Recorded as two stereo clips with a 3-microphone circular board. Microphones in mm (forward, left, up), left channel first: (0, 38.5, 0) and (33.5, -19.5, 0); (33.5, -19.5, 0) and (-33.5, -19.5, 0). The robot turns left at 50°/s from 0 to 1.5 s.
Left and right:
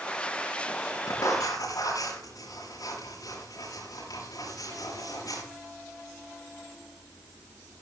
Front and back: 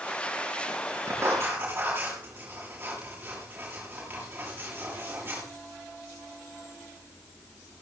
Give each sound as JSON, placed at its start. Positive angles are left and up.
{"t": 1.1, "sound": "writing", "azimuth_deg": 145, "distance_m": 8.0}